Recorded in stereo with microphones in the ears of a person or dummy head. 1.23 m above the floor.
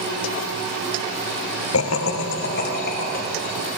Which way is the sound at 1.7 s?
80° left.